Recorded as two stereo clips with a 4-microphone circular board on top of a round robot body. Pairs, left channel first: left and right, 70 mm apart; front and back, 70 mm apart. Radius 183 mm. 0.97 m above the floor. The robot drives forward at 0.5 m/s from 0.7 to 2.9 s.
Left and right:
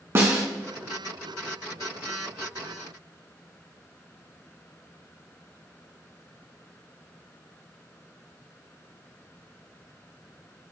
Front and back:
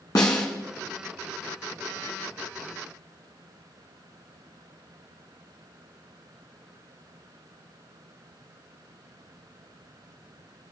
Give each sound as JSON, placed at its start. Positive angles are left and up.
{"t": 0.1, "sound": "a snare drum", "azimuth_deg": -40, "distance_m": 1.8}